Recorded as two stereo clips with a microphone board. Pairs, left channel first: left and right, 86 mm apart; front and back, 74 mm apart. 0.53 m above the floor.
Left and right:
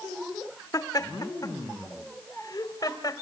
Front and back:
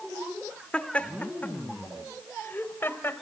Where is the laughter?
70° left, 1.3 m; by 3.2 s 55° left, 2.5 m.